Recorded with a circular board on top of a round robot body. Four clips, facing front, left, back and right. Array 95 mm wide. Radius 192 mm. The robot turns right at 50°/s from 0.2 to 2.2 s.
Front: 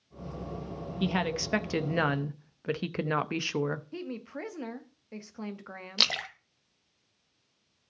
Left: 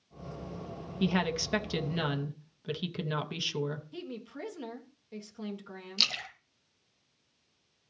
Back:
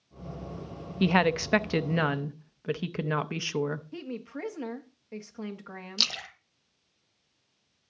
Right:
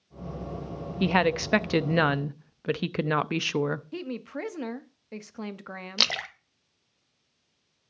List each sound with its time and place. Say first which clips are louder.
1.0 s a woman speaking: right 6 dB, back 6 dB; 140° right, 0.9 m; by 3.9 s 80° right, 0.9 m
3.9 s a woman speaking: right 7 dB, even; 85° right, 1.6 m
6.0 s a splash: right 9 dB, front 9 dB; 65° right, 0.8 m